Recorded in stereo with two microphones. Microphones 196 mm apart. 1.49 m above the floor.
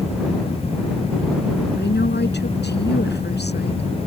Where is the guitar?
I don't hear a guitar.